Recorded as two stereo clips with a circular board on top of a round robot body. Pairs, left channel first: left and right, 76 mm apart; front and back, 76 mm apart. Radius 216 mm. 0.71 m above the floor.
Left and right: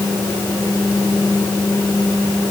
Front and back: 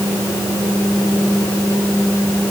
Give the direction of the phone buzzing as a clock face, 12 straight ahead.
I don't hear a phone buzzing.